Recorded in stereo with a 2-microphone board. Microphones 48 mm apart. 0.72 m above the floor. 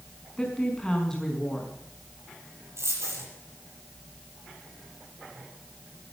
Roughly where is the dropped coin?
Right.